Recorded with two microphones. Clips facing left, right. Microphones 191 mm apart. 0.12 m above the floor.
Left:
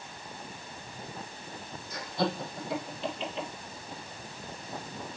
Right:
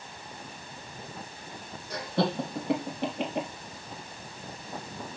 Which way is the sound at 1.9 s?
70° right (ahead or behind).